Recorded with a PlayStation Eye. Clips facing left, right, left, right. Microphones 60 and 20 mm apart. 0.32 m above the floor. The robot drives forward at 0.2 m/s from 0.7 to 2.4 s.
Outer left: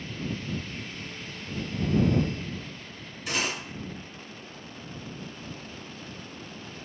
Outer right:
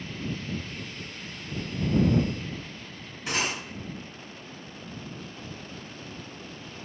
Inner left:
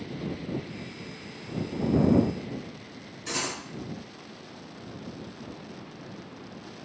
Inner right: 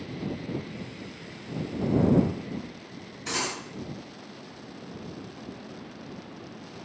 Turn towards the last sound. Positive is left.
turn(degrees=-35)  # may be behind; listen again after turning